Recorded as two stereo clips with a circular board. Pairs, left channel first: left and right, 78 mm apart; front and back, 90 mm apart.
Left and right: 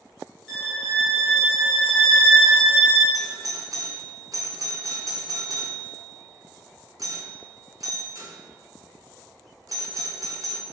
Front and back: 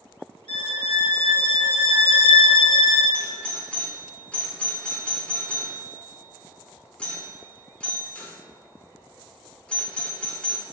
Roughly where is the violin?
Ahead.